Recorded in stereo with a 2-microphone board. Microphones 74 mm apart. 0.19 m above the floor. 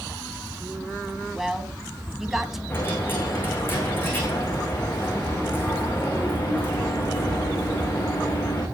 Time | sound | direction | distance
1.3 | a woman speaking | 5° right (ahead or behind) | 1.3 m
2.7 | a dropped coin | 30° left (ahead or behind) | 6.5 m